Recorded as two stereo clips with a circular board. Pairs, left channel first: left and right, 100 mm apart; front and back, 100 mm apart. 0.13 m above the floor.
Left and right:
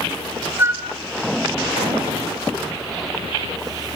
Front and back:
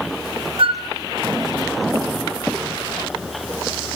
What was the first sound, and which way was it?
A flute, 155° right.